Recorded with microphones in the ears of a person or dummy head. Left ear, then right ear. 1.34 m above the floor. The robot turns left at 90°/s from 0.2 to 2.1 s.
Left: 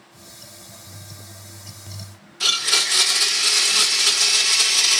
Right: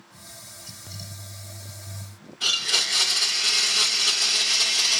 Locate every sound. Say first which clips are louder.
2.4 s a blender: left 3 dB; 65° left (ahead or behind), 1.9 m